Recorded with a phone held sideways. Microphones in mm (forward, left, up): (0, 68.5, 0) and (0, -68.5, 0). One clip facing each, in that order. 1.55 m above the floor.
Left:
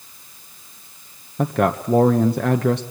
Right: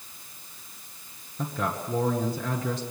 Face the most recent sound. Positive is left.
turn(degrees=65)  # may be behind; listen again after turning